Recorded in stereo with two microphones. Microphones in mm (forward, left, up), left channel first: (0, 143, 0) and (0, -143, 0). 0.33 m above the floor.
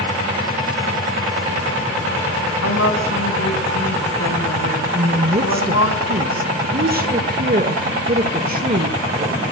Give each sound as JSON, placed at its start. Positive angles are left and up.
{"t": 2.6, "sound": "a woman speaking", "side_deg": 60, "distance_m": 2.5}
{"t": 4.9, "sound": "a woman speaking", "side_deg": -30, "distance_m": 1.2}